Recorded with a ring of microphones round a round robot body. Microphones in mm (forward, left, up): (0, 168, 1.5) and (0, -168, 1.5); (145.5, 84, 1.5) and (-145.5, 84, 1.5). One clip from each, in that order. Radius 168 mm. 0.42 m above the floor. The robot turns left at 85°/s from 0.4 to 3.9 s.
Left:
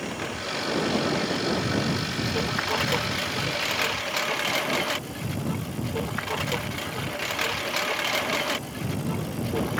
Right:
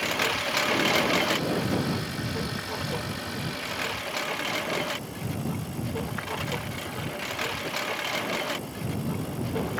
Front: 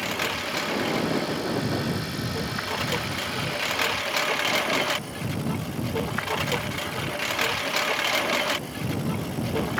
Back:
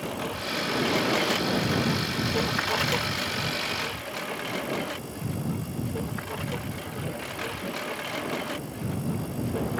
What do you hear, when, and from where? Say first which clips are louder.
0.0 s a lawn mower: right 5 dB, front 5 dB; 50° right; by 9.8 s 15° left